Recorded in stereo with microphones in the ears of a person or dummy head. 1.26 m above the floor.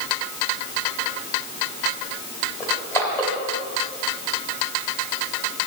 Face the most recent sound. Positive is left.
turn(degrees=15)  # may be behind; listen again after turning